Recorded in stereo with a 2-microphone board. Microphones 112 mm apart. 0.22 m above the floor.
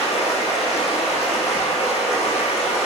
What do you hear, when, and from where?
0.0 s running water: 75° left (ahead or behind), 1.2 m